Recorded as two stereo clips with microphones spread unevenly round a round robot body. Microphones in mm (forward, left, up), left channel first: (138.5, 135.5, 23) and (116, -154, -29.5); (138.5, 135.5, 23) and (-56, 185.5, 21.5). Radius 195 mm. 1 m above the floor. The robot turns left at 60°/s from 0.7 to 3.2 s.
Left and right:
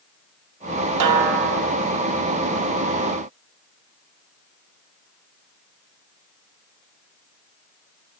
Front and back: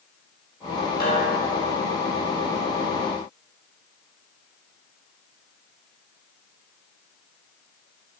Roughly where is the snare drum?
Right.